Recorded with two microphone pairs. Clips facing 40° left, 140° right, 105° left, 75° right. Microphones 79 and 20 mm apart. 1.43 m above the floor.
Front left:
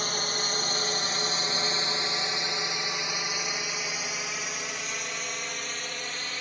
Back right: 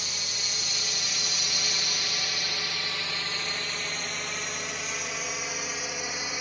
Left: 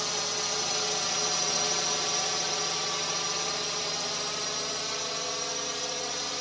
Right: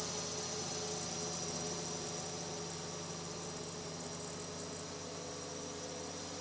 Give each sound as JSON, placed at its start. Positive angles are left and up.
{"t": 0.0, "sound": "a drone", "azimuth_deg": 70}